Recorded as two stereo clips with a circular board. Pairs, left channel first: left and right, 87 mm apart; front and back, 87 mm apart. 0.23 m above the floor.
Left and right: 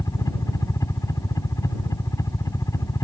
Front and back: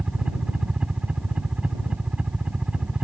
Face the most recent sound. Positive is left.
turn(degrees=105)